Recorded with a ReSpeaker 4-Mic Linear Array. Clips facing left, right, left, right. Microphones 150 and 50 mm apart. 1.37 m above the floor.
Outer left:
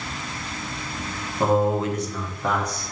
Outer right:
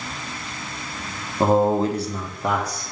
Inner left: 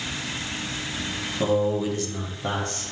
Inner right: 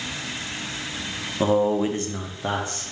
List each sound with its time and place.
1.4 s a man speaking: 30° right (ahead or behind), 0.7 m; by 2.8 s 10° right (ahead or behind), 0.9 m